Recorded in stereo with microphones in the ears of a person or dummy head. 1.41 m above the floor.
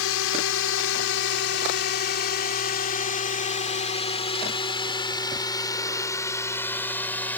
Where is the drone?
70° left (ahead or behind); by 7.4 s 10° left (ahead or behind).